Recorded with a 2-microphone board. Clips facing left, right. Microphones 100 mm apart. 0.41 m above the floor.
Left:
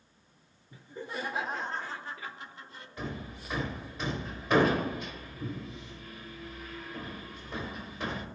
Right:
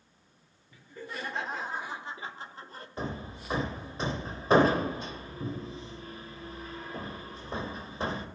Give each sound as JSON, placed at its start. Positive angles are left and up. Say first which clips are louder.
{"t": 0.7, "sound": "laughter", "louder": "left 2 dB", "side_deg": 30, "distance_m": 0.9}
{"t": 3.0, "sound": "hammering", "louder": "right 2 dB", "side_deg": -35, "distance_m": 1.0}